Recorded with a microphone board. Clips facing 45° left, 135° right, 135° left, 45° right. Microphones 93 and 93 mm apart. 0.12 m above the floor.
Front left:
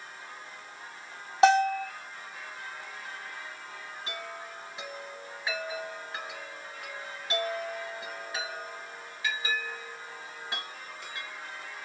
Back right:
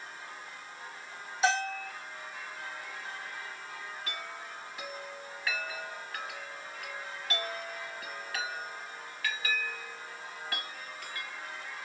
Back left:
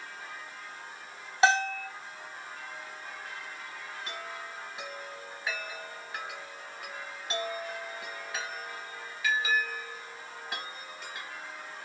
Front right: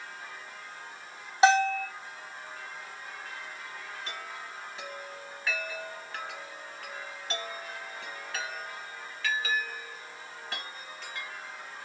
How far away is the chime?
About 1.6 m.